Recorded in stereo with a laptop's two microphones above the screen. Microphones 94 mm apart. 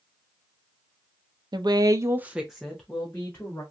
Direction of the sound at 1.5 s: 45° right (ahead or behind).